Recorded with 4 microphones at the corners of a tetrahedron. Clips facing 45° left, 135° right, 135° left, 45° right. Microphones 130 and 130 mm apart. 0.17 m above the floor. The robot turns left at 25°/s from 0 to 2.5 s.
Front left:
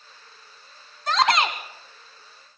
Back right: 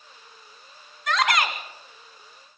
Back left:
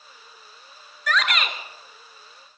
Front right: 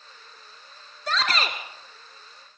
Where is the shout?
Straight ahead, 1.5 m; by 1.6 s 10° right, 1.5 m.